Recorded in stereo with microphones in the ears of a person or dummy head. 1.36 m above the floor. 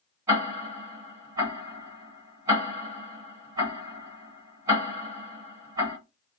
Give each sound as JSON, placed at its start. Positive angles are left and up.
{"t": 0.3, "sound": "ticking", "side_deg": -15, "distance_m": 1.7}